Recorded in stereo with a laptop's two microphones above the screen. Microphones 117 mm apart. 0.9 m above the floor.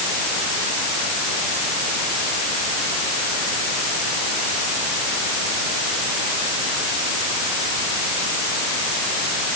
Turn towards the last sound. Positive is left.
No sound to turn to.